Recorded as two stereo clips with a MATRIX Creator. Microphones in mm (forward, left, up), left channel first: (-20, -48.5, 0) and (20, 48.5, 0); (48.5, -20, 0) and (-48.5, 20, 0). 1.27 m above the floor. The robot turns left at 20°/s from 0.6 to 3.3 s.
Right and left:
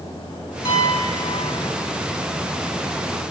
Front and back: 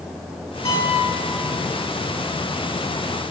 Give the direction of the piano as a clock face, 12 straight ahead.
3 o'clock.